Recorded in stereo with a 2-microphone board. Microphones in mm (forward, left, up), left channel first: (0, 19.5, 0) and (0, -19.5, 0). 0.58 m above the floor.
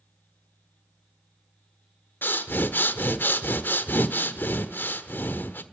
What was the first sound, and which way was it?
Breathing, 60° left (ahead or behind).